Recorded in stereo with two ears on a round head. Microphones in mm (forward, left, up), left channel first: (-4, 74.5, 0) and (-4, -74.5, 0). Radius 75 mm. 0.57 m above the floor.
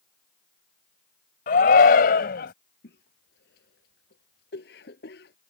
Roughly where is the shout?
Left.